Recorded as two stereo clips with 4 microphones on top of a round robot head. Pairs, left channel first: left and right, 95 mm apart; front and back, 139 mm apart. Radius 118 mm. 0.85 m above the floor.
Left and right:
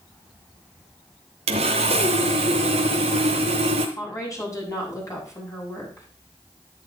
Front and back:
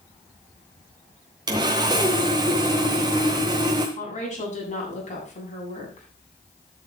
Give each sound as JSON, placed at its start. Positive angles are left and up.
{"t": 1.5, "sound": "sawing", "azimuth_deg": -115, "distance_m": 0.7}
{"t": 4.0, "sound": "a woman speaking", "azimuth_deg": 35, "distance_m": 7.5}